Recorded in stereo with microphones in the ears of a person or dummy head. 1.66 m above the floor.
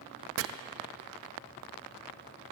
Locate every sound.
0.4 s chopping: 70° right (ahead or behind), 0.7 m